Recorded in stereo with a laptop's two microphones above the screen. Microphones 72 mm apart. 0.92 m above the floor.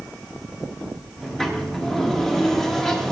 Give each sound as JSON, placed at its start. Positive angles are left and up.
{"t": 1.2, "sound": "a sliding door", "side_deg": 0, "distance_m": 1.3}